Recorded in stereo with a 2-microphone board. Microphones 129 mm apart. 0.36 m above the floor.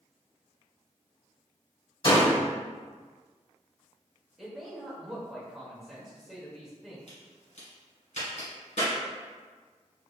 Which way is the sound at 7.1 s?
70° left (ahead or behind).